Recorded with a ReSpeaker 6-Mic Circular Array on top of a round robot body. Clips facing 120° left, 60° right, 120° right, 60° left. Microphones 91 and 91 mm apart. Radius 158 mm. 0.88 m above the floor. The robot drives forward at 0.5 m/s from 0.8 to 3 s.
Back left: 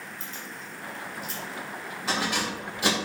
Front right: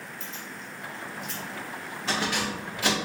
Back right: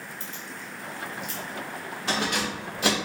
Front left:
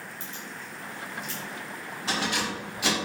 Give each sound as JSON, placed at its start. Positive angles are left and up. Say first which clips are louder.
{"t": 0.2, "sound": "keys jangling", "louder": "even, back right 1 dB", "azimuth_deg": -150, "distance_m": 1.3}